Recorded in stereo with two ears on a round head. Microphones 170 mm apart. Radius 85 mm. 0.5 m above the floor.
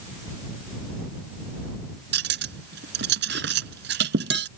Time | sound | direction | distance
2.1 | cutlery clinking | 65° right (ahead or behind) | ?